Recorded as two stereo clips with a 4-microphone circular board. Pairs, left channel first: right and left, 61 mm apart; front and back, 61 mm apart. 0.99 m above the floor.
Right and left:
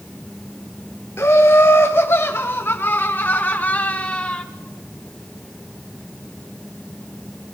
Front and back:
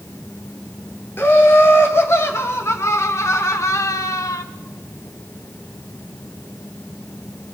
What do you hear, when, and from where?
1.2 s laughter: 45° right, 3 m; by 4.4 s 20° right, 1.5 m